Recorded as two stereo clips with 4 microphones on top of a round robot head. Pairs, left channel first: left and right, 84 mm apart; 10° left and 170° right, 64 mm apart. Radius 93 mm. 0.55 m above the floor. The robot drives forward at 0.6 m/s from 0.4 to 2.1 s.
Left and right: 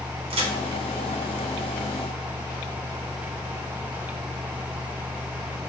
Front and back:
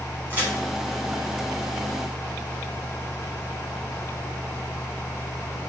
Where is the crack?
105° right, 1.0 m.